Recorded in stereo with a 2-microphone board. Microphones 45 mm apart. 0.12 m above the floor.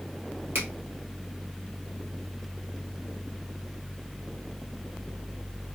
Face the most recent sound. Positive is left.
turn(degrees=-60)  # may be behind; listen again after turning